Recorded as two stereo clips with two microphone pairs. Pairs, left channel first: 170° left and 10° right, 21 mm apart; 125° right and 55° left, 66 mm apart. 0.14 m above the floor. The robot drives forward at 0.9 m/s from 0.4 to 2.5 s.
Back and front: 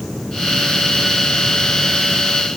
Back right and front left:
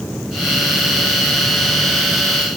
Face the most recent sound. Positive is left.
No sound to turn to.